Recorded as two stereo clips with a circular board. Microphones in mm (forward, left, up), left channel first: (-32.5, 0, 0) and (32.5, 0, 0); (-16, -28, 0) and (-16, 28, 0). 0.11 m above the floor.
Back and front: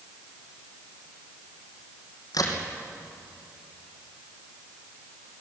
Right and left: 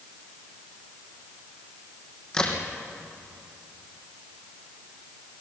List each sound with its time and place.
2.3 s a crack: 165° right, 3.5 m